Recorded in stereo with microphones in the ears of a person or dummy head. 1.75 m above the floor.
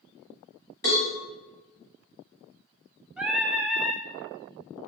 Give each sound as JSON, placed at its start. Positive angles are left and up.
{"t": 0.8, "sound": "a cowbell", "side_deg": 15, "distance_m": 1.3}
{"t": 3.2, "sound": "singing", "side_deg": -5, "distance_m": 0.6}